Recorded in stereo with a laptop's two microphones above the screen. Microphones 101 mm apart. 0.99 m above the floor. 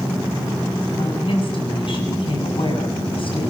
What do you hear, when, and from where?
0.9 s a woman speaking: 55° left (ahead or behind), 6.5 m